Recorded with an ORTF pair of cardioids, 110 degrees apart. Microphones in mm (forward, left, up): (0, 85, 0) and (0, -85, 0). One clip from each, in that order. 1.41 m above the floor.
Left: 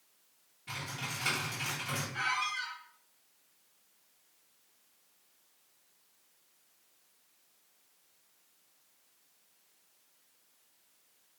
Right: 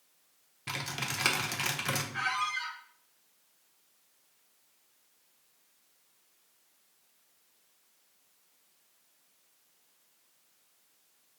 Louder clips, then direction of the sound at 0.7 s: Right 4 dB; 65° right.